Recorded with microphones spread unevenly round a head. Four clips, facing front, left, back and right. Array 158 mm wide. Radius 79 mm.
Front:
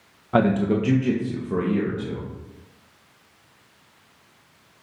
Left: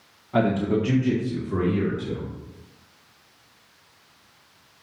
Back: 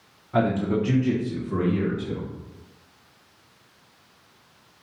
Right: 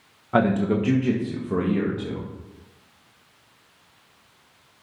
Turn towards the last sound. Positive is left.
turn(degrees=-75)